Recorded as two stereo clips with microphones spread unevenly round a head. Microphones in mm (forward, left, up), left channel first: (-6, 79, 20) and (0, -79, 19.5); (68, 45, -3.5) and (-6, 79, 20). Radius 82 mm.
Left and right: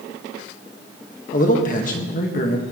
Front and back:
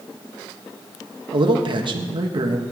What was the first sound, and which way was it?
A man speaking, 135° left.